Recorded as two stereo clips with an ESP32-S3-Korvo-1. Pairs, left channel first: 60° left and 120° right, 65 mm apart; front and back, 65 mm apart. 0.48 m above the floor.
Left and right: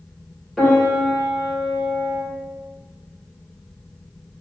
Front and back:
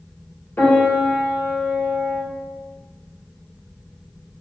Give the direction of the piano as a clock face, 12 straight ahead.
1 o'clock.